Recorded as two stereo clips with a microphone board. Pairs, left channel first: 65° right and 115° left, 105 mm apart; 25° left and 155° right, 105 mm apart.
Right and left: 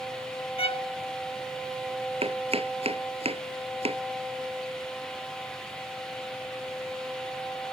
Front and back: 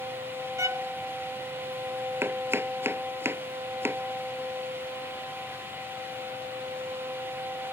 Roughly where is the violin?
Right.